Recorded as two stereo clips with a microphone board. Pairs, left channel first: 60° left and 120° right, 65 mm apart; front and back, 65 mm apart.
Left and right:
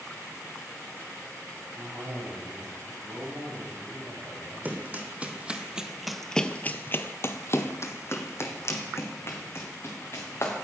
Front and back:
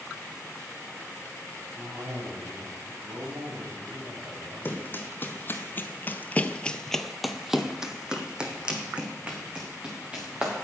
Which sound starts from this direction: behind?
A cough, at 1.8 s.